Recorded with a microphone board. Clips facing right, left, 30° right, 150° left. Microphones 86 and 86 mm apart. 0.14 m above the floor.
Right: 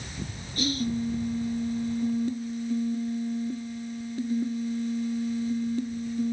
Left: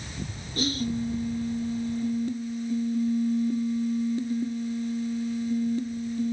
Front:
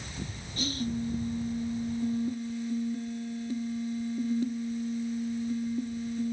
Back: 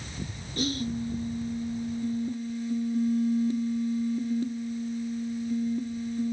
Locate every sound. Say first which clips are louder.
0.6 s whispering: even, back 4 dB; 135° left, 1.8 m